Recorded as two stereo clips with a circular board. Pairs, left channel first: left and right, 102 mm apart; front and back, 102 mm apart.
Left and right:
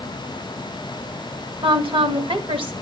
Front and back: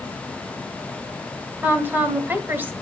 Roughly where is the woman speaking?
Right.